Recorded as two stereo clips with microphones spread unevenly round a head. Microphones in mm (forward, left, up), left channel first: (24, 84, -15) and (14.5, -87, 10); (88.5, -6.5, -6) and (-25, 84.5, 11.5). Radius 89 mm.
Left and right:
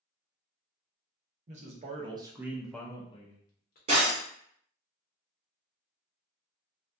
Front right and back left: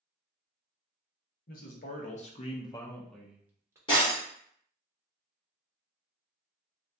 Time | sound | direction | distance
1.5 | a man speaking | 45° right | 0.8 m
3.9 | breaking glass | 95° right | 1.7 m